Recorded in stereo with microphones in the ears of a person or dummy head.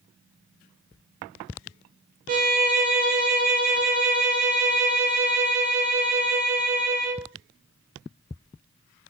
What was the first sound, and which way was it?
A violin, 35° right (ahead or behind).